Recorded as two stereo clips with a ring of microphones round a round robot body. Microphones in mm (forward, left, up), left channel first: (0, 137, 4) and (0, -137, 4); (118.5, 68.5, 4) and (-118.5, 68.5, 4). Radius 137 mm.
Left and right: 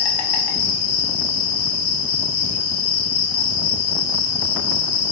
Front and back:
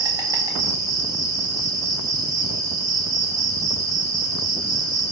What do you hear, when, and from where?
0.0 s an insect: 105° left, 0.8 m